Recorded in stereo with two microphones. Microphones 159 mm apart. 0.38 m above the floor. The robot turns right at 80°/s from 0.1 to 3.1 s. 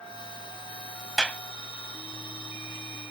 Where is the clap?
Centre (ahead or behind); by 1.4 s 20° left (ahead or behind).